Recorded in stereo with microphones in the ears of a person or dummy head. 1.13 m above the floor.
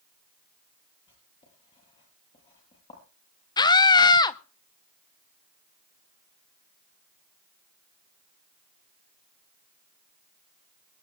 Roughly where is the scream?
Left.